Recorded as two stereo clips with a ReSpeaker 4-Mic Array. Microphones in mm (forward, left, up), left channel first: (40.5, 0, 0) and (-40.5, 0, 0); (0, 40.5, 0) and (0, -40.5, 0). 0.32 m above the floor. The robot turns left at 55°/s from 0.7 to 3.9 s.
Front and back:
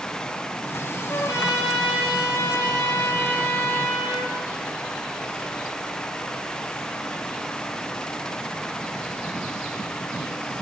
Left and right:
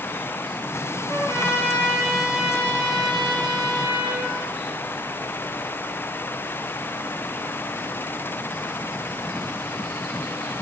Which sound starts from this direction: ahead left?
A trumpet, at 1.1 s.